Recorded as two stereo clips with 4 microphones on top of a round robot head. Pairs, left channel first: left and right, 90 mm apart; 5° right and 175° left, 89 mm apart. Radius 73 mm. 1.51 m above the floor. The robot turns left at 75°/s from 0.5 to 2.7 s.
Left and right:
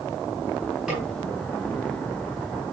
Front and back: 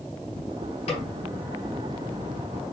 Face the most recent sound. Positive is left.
turn(degrees=-140)